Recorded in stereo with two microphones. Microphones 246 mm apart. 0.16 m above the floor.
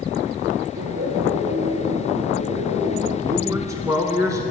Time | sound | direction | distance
0.8 | laughter | 70° right (ahead or behind) | 4 m
3.2 | a man speaking | 15° right (ahead or behind) | 1.1 m